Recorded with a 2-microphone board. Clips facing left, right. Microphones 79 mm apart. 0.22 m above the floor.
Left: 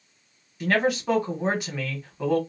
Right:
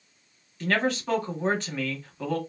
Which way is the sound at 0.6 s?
10° left (ahead or behind).